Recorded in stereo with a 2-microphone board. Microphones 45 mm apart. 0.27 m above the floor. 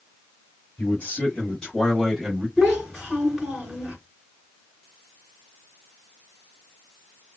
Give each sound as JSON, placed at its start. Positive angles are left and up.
{"t": 0.8, "sound": "a man speaking", "side_deg": 35, "distance_m": 1.9}
{"t": 2.6, "sound": "a child speaking", "side_deg": 5, "distance_m": 1.7}